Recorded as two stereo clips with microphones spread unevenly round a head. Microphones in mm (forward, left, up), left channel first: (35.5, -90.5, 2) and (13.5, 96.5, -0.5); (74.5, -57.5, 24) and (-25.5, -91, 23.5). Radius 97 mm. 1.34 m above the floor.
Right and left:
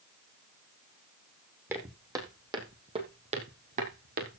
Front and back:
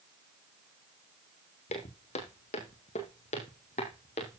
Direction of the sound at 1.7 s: 20° left.